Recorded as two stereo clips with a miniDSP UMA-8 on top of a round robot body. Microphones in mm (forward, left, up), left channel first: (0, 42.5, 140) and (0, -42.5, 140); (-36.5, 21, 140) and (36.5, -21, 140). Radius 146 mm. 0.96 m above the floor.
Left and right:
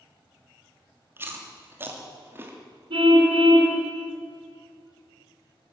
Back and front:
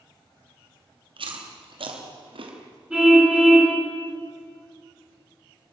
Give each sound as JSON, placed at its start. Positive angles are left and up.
{"t": 1.2, "sound": "chewing", "azimuth_deg": -25, "distance_m": 3.0}
{"t": 2.9, "sound": "a car horn", "azimuth_deg": -110, "distance_m": 5.5}